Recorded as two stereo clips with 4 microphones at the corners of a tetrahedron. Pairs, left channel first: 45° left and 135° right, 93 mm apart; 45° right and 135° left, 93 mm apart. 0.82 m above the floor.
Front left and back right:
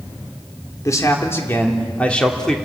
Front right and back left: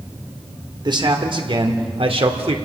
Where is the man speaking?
100° left, 3 m; by 2.5 s 130° left, 2.5 m.